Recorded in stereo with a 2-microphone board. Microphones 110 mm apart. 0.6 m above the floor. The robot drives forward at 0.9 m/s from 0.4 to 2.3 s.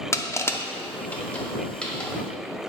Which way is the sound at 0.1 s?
25° left (ahead or behind).